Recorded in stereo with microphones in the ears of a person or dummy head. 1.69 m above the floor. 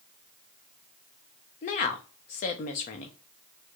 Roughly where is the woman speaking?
Left.